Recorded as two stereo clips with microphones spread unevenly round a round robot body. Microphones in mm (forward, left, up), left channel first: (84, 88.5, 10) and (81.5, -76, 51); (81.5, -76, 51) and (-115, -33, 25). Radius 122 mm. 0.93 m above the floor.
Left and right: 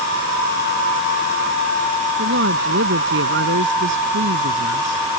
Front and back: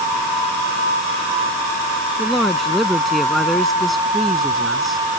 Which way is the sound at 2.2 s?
100° right.